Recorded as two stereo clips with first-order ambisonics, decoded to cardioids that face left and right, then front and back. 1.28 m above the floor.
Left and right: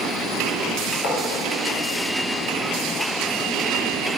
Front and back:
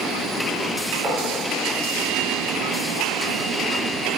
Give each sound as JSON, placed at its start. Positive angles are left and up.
{"t": 1.0, "sound": "writing", "azimuth_deg": 100, "distance_m": 0.5}